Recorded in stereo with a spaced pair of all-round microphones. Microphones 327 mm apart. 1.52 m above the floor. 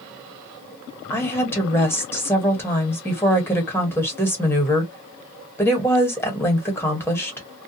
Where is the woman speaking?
5° left (ahead or behind), 1.3 m.